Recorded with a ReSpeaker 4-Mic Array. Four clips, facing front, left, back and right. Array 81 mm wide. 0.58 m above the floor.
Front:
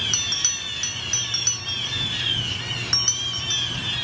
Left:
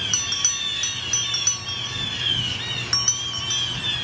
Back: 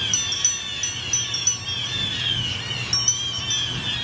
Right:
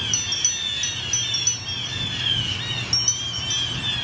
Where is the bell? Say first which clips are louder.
Left 1 dB, even; 55° left, 0.7 m.